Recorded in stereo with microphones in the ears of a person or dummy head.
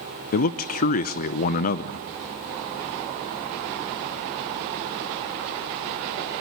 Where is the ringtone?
I don't hear a ringtone.